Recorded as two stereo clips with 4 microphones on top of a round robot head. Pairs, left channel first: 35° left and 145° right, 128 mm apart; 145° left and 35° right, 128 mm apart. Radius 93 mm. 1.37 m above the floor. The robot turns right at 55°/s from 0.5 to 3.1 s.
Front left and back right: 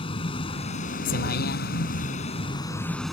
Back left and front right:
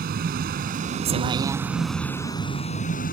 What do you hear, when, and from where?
0.0 s a vehicle: 20° right; by 3.1 s 125° left